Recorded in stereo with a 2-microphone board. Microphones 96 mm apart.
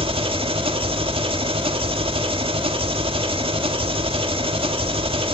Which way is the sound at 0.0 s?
65° right (ahead or behind).